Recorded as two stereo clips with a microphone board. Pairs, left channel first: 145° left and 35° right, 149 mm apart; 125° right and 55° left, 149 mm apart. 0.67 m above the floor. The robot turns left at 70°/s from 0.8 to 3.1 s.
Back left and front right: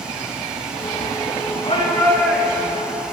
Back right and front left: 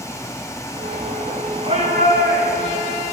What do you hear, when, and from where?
1.6 s a shout: 95° left, 10 m; by 2.9 s 10° left, 10 m